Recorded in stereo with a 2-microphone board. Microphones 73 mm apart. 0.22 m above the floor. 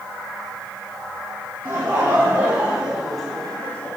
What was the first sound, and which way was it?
Laughter, 30° right (ahead or behind).